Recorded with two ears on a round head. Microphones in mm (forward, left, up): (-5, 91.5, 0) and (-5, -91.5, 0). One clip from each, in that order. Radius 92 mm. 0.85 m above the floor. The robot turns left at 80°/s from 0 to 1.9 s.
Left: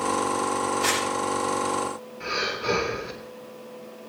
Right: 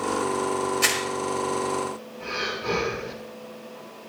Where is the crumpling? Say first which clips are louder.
Right 2 dB; 55° right (ahead or behind), 7 m; by 1.0 s 70° right (ahead or behind), 7 m.